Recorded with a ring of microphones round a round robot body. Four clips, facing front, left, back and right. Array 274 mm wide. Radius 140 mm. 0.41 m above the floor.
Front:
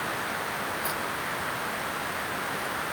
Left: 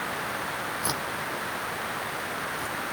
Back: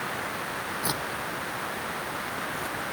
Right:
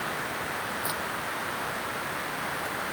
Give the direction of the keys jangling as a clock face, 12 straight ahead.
7 o'clock.